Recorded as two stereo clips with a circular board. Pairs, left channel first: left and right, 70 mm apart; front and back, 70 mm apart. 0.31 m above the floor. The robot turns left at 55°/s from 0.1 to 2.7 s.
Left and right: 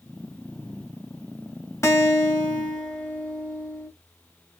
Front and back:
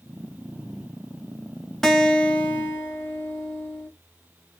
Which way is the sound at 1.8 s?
80° left.